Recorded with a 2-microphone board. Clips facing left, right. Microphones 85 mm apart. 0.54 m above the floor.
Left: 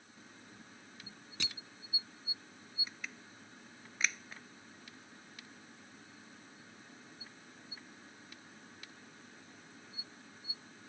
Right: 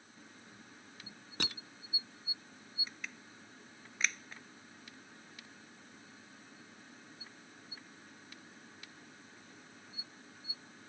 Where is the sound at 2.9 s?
Centre (ahead or behind).